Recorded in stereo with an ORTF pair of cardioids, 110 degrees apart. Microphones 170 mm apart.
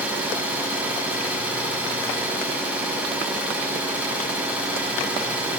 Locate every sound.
0.0 s an engine running: 5° right, 8.5 m